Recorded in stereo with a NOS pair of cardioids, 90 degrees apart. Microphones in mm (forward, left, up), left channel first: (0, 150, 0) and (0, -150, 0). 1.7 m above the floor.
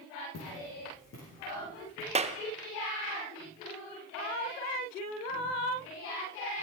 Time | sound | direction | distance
0.3 | footsteps | 60° left | 6.5 m
2.1 | a clap | 20° right | 0.8 m